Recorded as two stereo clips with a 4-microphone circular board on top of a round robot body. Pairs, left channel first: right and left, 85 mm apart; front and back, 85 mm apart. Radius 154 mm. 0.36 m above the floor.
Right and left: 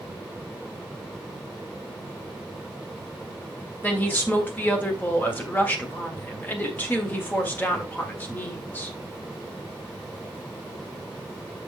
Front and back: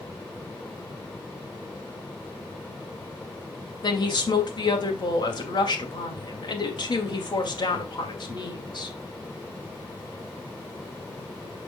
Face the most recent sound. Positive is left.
turn(degrees=-25)